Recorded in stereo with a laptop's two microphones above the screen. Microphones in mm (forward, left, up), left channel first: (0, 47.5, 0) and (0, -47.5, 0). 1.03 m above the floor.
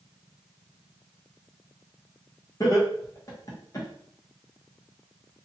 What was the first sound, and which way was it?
Laughter, 35° left (ahead or behind).